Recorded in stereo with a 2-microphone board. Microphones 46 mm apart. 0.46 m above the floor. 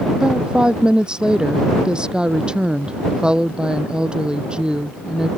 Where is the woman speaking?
15° right (ahead or behind).